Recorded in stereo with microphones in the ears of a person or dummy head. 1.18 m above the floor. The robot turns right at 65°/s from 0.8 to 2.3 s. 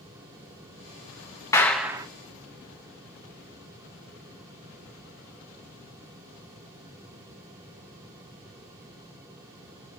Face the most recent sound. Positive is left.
turn(degrees=-145)